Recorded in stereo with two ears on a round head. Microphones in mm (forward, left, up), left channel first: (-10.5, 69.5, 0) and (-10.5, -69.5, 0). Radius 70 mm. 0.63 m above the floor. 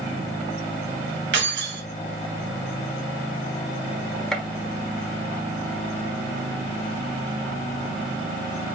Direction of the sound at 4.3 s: 5° left (ahead or behind).